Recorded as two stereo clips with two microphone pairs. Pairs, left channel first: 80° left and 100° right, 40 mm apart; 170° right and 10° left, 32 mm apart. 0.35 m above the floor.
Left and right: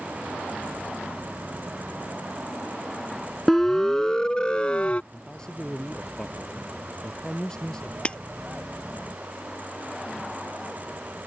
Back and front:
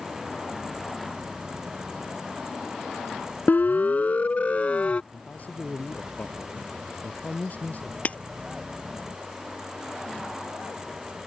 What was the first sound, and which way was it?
A siren, 160° left.